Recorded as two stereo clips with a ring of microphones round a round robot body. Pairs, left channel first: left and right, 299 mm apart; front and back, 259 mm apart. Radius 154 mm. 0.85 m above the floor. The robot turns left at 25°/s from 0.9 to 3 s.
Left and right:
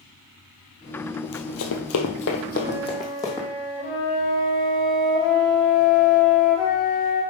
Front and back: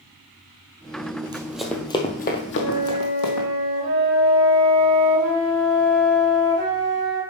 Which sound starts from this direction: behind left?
Running footsteps, at 1.2 s.